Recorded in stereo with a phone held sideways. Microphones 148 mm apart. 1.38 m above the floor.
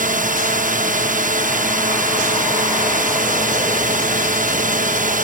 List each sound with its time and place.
0.0 s a drone: 65° right (ahead or behind)